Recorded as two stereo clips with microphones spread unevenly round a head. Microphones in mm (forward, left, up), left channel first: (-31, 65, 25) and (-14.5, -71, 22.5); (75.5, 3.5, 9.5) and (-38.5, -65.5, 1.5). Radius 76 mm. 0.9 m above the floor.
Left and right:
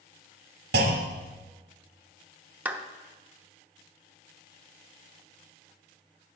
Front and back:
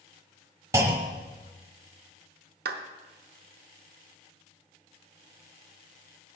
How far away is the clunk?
About 1.2 m.